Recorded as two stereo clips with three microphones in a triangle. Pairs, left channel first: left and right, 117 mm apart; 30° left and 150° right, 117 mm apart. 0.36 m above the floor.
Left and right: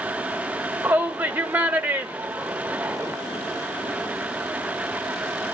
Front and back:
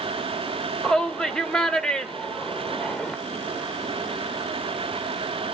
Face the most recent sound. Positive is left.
turn(degrees=-45)